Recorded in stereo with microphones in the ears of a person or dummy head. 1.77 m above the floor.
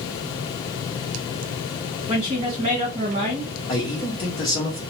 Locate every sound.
2.1 s a woman speaking: 25° right (ahead or behind), 1.1 m
3.7 s a man speaking: 30° left (ahead or behind), 0.8 m